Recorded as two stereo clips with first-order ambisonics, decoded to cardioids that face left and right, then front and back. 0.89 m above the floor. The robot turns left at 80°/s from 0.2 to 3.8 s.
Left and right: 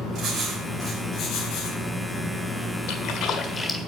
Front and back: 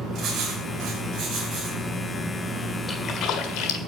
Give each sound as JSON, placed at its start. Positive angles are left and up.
{"t": 0.1, "sound": "writing", "azimuth_deg": -135, "distance_m": 5.0}
{"t": 2.9, "sound": "a splash", "azimuth_deg": 75, "distance_m": 1.5}